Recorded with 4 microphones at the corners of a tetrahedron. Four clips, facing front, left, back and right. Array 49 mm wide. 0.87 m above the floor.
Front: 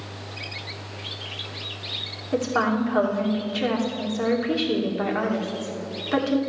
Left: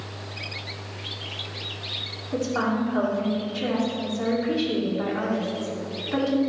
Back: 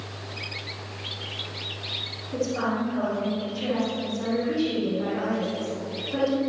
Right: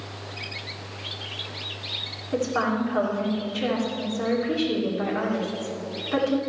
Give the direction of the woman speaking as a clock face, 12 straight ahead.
12 o'clock.